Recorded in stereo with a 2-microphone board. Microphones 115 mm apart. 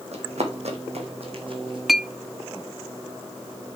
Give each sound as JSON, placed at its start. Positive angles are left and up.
{"t": 0.1, "sound": "running footsteps", "side_deg": -75, "distance_m": 2.5}
{"t": 1.9, "sound": "a clink", "side_deg": 0, "distance_m": 0.5}